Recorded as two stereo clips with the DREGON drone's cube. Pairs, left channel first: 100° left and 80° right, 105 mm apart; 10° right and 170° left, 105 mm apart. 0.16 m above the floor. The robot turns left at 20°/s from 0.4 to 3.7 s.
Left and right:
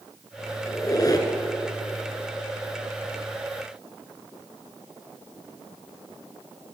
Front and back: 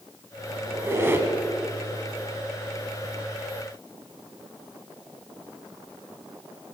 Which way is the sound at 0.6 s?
125° left.